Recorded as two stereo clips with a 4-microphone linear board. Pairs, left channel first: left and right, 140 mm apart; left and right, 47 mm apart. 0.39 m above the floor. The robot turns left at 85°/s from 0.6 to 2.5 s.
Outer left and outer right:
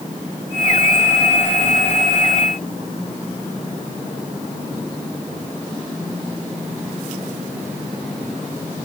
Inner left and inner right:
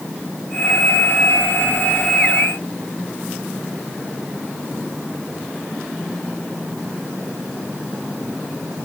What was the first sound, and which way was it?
Only background noise.